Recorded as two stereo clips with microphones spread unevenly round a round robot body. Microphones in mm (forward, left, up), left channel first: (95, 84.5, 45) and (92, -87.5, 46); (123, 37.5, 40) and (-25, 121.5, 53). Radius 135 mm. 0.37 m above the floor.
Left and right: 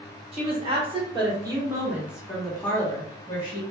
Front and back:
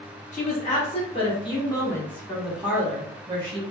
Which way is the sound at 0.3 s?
45° right.